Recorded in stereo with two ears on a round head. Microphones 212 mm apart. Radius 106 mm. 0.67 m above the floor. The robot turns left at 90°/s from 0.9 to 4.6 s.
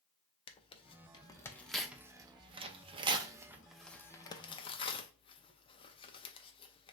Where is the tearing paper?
20° left (ahead or behind), 0.5 m.